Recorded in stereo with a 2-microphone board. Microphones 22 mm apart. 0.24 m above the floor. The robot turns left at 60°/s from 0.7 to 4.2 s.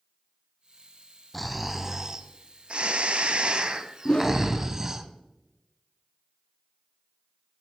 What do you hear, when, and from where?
1.3 s snoring: 20° left, 0.6 m; by 5.0 s 155° right, 0.6 m
4.0 s a whoosh: 35° left (ahead or behind), 0.9 m; by 4.4 s 40° left (ahead or behind), 0.9 m